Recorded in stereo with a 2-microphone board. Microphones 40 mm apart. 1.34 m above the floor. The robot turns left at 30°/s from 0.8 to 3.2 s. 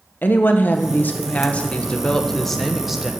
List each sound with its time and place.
0.2 s a woman speaking: 60° left, 1.0 m; by 3.1 s 10° right, 1.0 m